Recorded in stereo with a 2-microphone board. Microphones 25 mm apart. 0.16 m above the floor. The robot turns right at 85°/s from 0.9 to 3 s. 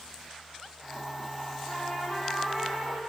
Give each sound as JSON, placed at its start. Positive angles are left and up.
{"t": 1.7, "sound": "a trumpet", "azimuth_deg": 125, "distance_m": 9.0}